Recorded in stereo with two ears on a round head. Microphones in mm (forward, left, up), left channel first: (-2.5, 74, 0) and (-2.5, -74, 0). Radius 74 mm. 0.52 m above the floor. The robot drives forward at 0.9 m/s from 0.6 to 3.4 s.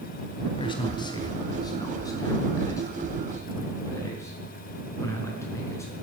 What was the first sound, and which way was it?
A man speaking, 30° left (ahead or behind).